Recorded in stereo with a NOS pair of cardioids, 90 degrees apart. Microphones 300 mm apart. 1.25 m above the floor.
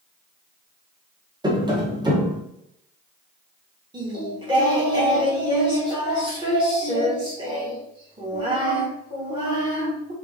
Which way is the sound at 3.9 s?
15° right.